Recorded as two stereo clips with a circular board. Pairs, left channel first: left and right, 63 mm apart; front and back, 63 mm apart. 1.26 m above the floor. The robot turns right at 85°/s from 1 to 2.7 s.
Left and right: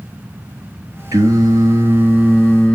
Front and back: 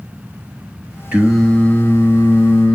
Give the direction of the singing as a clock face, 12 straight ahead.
4 o'clock.